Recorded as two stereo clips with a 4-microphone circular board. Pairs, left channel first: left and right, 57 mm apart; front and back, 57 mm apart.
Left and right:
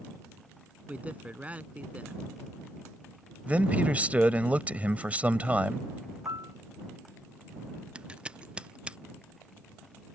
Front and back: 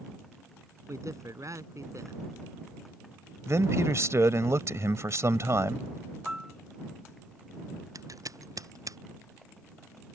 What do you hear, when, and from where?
0.9 s a man speaking: 155° right
3.5 s a man speaking: 155° right
6.2 s a piano: 105° right
8.0 s scissors: 165° right